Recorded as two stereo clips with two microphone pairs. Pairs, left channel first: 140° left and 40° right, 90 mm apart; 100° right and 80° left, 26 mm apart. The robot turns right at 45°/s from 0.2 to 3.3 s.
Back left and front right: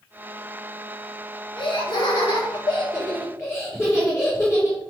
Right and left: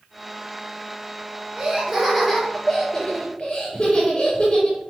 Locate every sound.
1.6 s laughter: 120° left, 4.5 m; by 4.8 s 160° right, 4.5 m